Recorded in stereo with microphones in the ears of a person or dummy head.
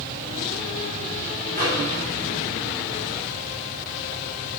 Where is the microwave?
10° left (ahead or behind), 3 m.